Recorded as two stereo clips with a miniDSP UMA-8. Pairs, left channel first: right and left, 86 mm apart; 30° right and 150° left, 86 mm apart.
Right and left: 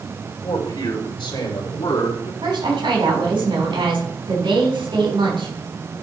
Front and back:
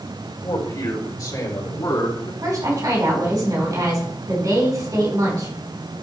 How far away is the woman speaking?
About 4 m.